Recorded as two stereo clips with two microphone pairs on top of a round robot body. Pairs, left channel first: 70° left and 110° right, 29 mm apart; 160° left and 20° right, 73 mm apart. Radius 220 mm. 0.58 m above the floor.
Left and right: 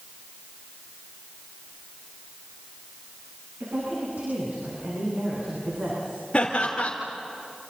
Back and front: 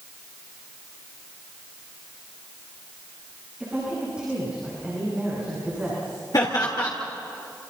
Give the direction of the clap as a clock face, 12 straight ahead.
No clap in this recording.